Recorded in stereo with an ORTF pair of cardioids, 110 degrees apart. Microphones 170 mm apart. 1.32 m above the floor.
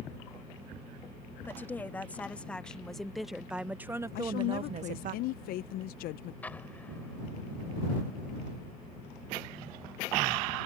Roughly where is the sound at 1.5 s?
Ahead.